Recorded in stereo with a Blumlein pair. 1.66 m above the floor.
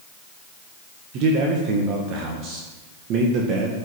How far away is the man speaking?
About 1.6 m.